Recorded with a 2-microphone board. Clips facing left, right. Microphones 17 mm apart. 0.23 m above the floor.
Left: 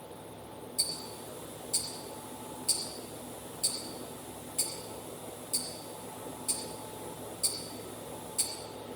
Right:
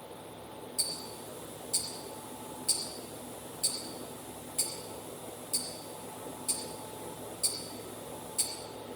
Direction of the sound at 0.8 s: 15° right (ahead or behind).